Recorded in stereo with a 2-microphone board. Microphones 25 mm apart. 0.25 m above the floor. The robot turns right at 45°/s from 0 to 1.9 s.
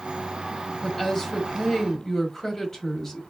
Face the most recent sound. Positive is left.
turn(degrees=20)  # may be behind; listen again after turning